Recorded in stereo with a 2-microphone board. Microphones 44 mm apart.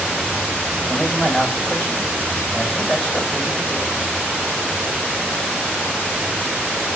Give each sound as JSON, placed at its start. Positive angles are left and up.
{"t": 0.9, "sound": "a man speaking", "side_deg": 35, "distance_m": 4.5}